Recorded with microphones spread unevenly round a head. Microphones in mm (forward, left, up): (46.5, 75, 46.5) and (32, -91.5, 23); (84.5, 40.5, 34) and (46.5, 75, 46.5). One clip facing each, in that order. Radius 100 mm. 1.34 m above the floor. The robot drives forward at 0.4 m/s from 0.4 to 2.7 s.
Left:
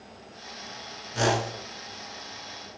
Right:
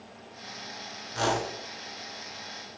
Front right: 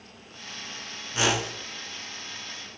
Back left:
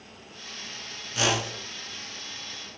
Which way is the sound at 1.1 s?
15° left.